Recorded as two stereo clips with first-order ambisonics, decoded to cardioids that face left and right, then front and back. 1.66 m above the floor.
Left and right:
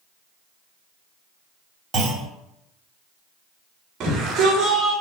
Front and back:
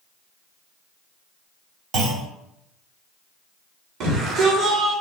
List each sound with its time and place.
1.9 s a clunk: 155° right, 3 m
4.0 s a shout: 145° right, 4 m